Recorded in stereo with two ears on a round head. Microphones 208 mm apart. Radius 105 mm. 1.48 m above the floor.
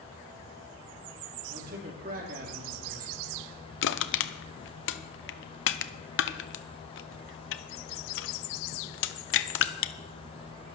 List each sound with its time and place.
1.5 s a man speaking: 40° right (ahead or behind), 3 m
3.8 s crushing: 60° left (ahead or behind), 0.8 m